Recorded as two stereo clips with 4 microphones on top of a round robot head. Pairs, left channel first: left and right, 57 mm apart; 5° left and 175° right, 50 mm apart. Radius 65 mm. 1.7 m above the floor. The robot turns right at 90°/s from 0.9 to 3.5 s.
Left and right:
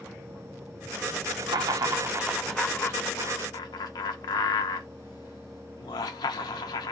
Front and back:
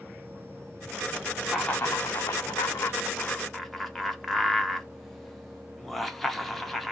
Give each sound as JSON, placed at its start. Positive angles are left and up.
{"t": 1.5, "sound": "laughter", "azimuth_deg": -90, "distance_m": 0.8}